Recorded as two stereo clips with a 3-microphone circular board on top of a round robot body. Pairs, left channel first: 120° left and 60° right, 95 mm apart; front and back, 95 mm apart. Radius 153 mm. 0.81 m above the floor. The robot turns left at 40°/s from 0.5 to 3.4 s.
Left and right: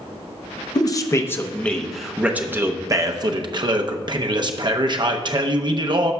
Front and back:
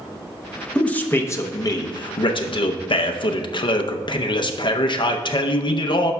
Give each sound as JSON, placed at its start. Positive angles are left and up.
{"t": 0.8, "sound": "a man speaking", "azimuth_deg": 80, "distance_m": 0.8}